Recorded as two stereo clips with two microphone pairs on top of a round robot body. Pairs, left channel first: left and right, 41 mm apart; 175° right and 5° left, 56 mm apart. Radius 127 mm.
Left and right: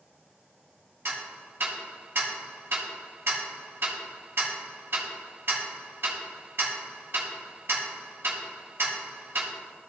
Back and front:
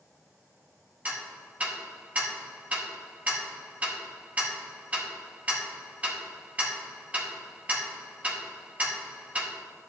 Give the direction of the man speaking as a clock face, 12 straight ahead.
No man speaking in this recording.